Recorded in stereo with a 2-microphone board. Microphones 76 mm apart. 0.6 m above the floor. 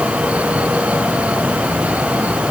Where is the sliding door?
I don't hear a sliding door.